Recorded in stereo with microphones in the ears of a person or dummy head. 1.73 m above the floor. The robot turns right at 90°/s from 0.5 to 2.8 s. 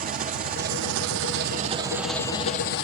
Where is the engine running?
140° right, 1.1 m; by 2.8 s 70° left, 1.1 m.